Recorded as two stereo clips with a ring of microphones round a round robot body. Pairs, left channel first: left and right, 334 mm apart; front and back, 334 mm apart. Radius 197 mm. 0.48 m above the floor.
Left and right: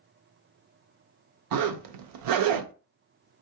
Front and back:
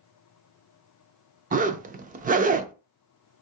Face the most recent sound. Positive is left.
turn(degrees=-110)